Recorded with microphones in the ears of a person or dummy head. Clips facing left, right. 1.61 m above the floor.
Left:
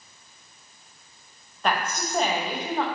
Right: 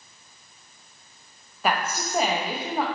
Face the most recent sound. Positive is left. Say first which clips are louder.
# right 1 dB
turn(degrees=-5)  # may be behind; listen again after turning